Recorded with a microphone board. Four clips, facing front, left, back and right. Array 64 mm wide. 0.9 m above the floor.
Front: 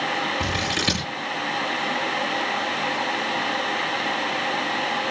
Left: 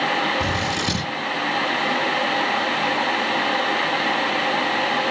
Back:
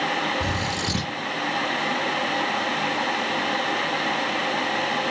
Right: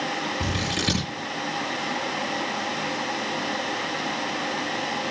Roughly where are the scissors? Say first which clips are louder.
Left 4 dB, front 1 dB; ahead.